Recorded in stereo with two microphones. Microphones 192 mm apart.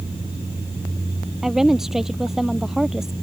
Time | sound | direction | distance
1.4 | a woman speaking | centre (ahead or behind) | ?